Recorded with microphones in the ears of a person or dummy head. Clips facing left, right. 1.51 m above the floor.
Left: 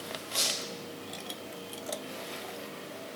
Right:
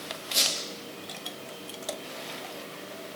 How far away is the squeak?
About 1.4 m.